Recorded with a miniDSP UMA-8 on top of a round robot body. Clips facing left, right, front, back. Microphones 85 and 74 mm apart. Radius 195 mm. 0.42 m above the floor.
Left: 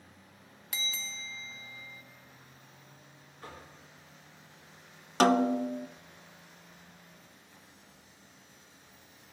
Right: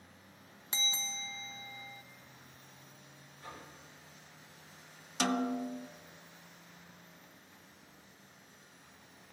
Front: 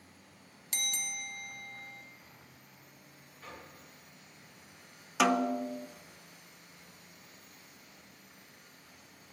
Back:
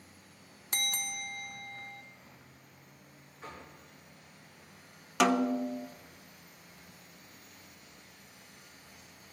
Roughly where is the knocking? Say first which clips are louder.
Left 1 dB, back 2 dB; behind left.